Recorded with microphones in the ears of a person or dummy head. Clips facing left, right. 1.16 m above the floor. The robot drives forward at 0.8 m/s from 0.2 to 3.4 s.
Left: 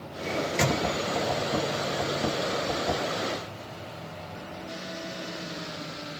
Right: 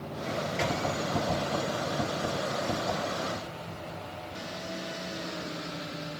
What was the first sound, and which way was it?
A microwave, 70° left (ahead or behind).